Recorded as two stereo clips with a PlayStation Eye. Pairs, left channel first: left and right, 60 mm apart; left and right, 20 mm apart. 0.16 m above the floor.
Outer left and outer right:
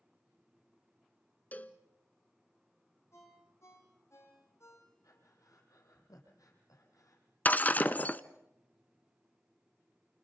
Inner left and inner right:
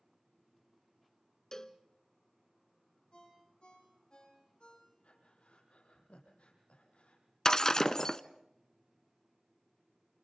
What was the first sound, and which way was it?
A cowbell, 25° left (ahead or behind).